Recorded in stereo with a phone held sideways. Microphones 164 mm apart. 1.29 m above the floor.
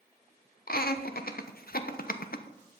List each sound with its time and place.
0.7 s laughter: 65° left (ahead or behind), 1.0 m